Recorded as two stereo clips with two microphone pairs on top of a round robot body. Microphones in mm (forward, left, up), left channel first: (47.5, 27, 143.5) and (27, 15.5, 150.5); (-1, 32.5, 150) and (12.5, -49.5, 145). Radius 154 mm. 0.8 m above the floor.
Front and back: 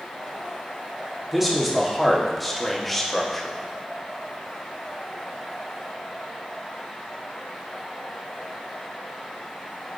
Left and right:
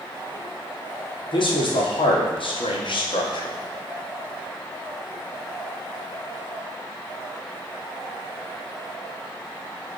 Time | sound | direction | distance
1.3 | a man speaking | 120° left | 2.5 m